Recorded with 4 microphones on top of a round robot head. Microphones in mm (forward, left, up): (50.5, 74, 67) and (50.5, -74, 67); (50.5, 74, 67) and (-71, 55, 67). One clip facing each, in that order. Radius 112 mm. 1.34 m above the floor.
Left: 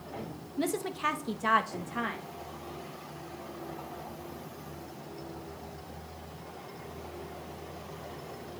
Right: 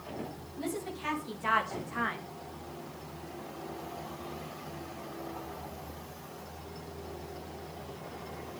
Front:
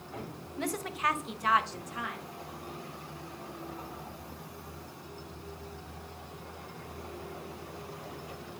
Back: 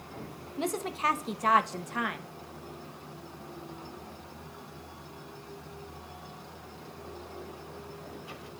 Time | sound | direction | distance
0.6 | a woman speaking | 120° left | 1.6 m